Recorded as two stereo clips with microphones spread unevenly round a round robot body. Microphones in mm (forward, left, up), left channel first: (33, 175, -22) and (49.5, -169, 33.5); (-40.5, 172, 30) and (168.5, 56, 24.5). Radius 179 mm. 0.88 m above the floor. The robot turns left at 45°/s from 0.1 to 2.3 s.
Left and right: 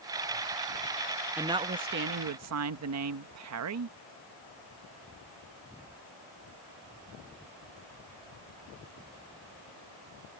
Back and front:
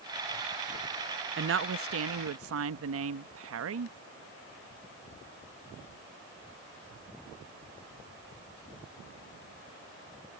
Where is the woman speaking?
Straight ahead; by 4.0 s 40° right.